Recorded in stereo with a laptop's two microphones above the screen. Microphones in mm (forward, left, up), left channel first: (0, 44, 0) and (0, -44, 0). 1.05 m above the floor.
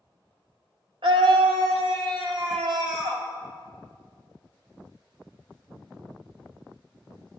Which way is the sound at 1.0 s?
75° right (ahead or behind).